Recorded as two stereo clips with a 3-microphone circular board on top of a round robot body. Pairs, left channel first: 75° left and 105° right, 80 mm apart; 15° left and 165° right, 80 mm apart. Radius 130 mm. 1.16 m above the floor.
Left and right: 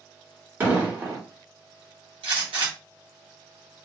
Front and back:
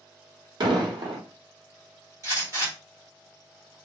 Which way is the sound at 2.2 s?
110° right.